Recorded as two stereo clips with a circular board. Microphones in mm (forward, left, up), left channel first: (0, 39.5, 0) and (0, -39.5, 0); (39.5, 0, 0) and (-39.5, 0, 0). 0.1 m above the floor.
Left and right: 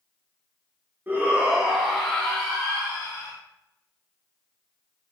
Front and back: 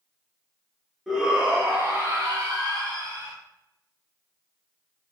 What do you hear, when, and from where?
1.1 s a shout: 95° right, 1.1 m; by 3.3 s 155° left, 2 m